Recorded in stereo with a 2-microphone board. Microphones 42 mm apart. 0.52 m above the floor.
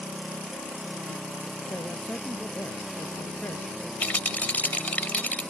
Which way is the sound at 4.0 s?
40° left (ahead or behind).